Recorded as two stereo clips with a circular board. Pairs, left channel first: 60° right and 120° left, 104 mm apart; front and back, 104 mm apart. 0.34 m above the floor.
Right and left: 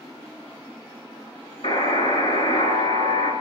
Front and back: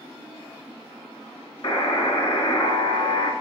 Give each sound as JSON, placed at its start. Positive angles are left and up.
{"t": 1.6, "sound": "a buzzer", "azimuth_deg": -55, "distance_m": 2.5}